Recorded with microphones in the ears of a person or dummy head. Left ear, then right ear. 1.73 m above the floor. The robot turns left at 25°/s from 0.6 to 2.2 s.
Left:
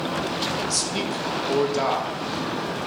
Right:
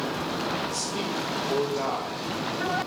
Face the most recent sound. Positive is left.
turn(degrees=25)